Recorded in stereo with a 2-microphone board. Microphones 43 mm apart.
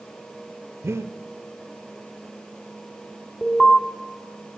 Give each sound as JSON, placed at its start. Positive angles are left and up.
{"t": 0.8, "sound": "breathing", "side_deg": -80, "distance_m": 1.7}
{"t": 3.4, "sound": "an alarm", "side_deg": 25, "distance_m": 3.0}